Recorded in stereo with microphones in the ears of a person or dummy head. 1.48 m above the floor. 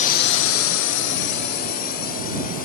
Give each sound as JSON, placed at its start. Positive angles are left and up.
{"t": 0.0, "sound": "a drone", "side_deg": 40}